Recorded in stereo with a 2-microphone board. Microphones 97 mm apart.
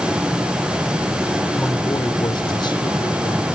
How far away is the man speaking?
About 1.1 m.